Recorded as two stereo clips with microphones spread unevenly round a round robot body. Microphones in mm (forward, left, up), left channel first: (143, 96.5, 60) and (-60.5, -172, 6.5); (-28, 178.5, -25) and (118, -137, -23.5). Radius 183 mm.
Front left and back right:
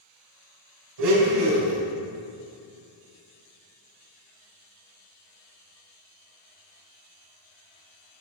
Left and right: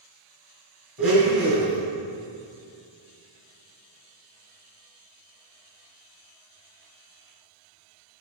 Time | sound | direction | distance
1.0 | a blender | 155° right | 1.9 m